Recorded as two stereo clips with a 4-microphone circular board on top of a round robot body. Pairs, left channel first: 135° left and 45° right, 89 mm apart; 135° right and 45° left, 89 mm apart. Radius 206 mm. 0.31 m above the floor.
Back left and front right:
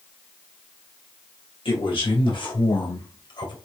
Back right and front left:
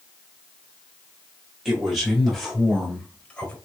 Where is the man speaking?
135° left, 4.5 m; by 3.5 s 155° left, 3 m.